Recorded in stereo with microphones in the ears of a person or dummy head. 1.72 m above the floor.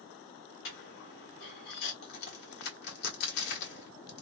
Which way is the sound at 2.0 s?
60° left (ahead or behind).